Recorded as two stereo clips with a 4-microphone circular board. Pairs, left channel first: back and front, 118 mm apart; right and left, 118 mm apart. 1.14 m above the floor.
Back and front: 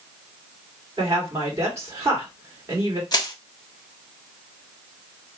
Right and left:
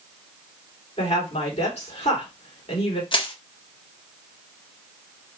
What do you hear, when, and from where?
1.0 s a woman speaking: 65° right, 2 m
3.1 s crushing: 130° right, 0.7 m